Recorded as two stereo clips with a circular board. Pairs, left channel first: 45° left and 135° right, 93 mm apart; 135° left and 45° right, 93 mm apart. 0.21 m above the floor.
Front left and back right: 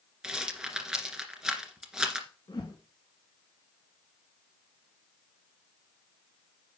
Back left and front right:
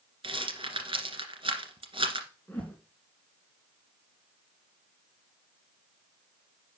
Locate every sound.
0.2 s a rattle: 55° right, 1.9 m
2.5 s a whoosh: 65° left, 1.9 m